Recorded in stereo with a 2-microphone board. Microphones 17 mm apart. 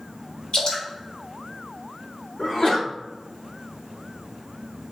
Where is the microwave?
No microwave in this recording.